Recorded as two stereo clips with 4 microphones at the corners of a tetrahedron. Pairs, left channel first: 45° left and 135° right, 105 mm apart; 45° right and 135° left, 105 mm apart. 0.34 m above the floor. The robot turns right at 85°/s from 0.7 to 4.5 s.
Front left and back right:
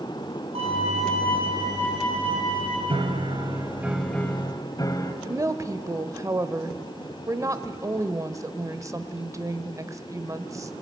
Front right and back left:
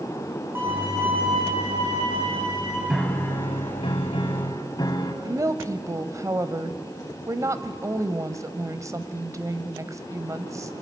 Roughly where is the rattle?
No rattle in this recording.